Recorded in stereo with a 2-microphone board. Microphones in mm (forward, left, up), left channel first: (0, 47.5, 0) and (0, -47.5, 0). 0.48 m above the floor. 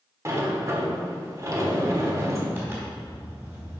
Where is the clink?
I don't hear a clink.